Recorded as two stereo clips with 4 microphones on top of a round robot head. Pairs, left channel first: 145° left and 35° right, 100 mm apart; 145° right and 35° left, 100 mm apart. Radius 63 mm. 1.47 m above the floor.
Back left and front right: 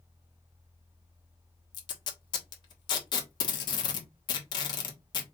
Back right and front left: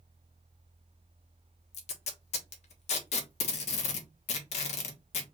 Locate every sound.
1.7 s tape being pulled: 165° right, 1.3 m